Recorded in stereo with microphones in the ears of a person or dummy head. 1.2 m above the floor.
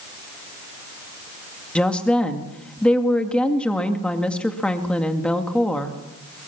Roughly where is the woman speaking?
Centre.